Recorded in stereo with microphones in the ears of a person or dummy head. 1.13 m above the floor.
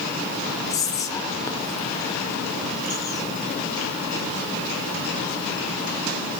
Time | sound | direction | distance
0.7 | whispering | 15° left (ahead or behind) | 0.7 m